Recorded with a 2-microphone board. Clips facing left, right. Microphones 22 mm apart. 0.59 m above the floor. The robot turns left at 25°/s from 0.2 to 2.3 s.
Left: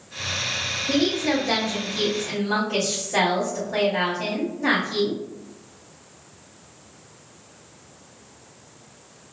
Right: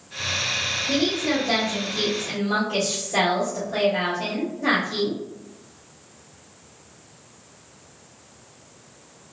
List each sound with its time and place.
0.9 s a woman speaking: 50° left, 1.3 m; by 5.2 s 15° left, 1.3 m